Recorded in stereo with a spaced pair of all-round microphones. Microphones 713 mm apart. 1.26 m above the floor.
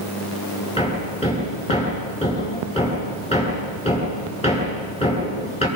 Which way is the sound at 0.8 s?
10° left (ahead or behind).